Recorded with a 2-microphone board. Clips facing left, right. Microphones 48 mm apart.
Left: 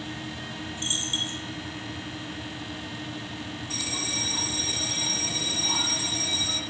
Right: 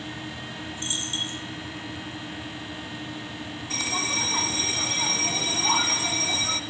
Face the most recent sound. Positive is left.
turn(degrees=-50)  # may be behind; listen again after turning